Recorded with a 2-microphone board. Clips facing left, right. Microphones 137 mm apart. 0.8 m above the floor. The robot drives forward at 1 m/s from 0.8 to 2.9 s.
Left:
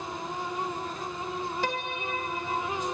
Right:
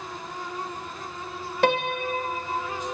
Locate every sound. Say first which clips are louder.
1.6 s a piano: right 8 dB; 70° right (ahead or behind), 0.6 m; by 2.9 s 20° right (ahead or behind), 1.4 m